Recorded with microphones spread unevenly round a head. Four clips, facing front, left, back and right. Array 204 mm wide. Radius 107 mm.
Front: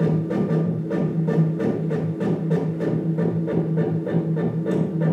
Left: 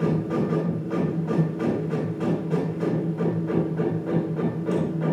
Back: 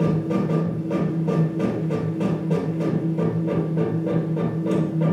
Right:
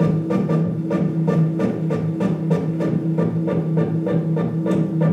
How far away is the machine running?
About 3.5 m.